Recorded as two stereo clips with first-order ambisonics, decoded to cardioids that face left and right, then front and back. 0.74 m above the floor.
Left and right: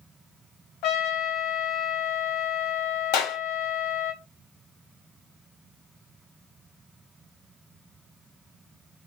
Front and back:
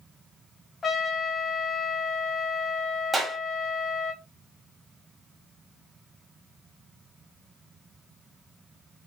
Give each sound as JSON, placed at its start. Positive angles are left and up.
{"t": 0.8, "sound": "a trumpet", "azimuth_deg": 70, "distance_m": 0.9}
{"t": 3.1, "sound": "a clap", "azimuth_deg": 100, "distance_m": 1.0}